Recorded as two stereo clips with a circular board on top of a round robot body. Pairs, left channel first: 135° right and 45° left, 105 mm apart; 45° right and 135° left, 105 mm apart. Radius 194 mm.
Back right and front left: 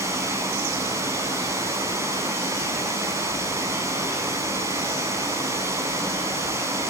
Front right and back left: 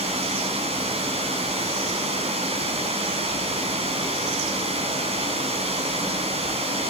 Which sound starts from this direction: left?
Running water, at 0.0 s.